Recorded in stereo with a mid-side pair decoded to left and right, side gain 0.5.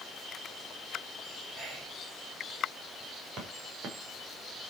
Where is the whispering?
40° right, 5.5 m.